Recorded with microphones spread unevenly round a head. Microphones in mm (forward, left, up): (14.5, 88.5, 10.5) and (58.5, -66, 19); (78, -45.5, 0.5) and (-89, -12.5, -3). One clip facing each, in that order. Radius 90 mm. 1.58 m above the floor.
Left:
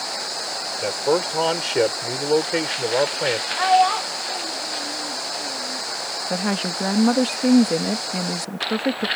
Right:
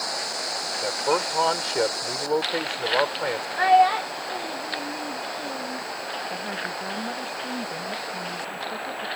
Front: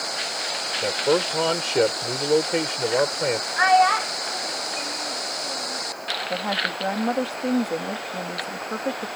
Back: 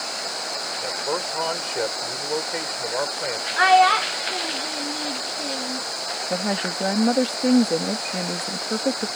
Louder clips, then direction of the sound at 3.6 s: Even, back 3 dB; 150° right.